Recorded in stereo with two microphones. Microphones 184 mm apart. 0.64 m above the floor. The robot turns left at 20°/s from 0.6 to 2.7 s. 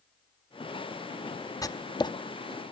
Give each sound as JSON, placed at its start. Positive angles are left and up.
{"t": 1.6, "sound": "writing", "side_deg": 20, "distance_m": 0.6}